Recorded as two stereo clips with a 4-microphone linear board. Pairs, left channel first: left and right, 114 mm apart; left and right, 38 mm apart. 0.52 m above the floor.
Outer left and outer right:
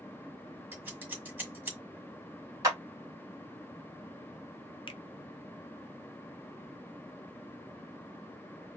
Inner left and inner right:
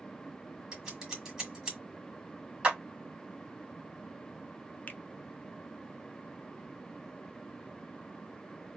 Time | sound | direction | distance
0.7 | scissors | 15° right (ahead or behind) | 1.6 m
2.6 | a clap | 25° right (ahead or behind) | 2.0 m
4.9 | a finger snap | 45° left (ahead or behind) | 0.6 m